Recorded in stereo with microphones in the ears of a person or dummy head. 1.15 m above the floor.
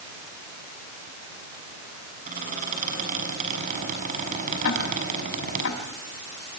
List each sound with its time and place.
2.3 s a squeak: 45° right (ahead or behind), 6.5 m
4.6 s ticking: 70° left (ahead or behind), 5.5 m